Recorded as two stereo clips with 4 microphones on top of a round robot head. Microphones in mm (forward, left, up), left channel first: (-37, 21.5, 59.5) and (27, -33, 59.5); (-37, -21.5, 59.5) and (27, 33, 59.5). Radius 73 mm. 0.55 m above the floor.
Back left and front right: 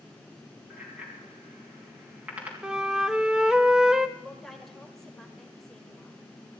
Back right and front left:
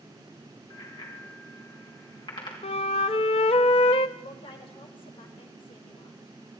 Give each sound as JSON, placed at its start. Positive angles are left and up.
{"t": 0.7, "sound": "a bicycle bell", "azimuth_deg": -115, "distance_m": 4.0}
{"t": 2.6, "sound": "a flute", "azimuth_deg": -120, "distance_m": 0.5}
{"t": 4.2, "sound": "a woman speaking", "azimuth_deg": -135, "distance_m": 2.0}